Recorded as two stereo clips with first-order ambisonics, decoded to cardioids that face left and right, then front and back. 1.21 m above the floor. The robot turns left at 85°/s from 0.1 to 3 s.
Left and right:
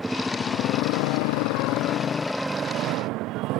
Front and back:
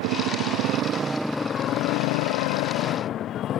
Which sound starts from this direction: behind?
A motorcycle, at 0.0 s.